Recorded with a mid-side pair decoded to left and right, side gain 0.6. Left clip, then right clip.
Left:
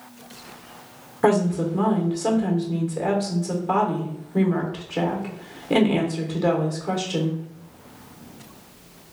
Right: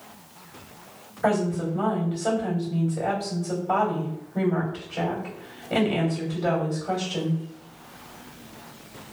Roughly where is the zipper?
No zipper in this recording.